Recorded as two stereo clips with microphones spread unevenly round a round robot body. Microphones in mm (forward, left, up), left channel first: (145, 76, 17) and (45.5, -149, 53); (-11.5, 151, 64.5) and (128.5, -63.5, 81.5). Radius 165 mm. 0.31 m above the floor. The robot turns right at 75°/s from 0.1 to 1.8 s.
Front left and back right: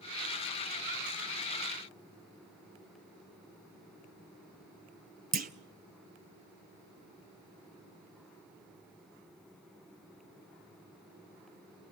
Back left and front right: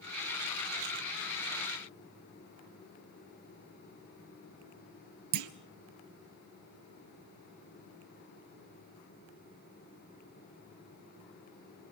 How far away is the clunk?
About 1.1 m.